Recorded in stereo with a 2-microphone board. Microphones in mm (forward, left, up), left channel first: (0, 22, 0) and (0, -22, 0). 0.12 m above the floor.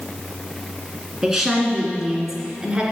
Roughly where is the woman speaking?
Centre.